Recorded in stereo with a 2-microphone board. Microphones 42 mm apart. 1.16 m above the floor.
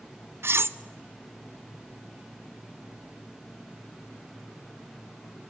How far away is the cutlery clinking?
About 0.5 m.